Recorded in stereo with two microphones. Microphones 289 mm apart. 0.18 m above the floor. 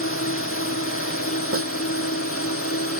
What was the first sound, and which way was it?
A drone, 45° left (ahead or behind).